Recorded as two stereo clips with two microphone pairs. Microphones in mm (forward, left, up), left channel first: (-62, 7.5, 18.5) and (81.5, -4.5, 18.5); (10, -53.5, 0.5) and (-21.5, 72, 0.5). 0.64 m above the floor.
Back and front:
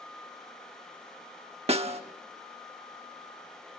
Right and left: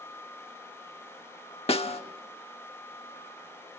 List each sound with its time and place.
1.7 s a snare drum: 45° right, 1.1 m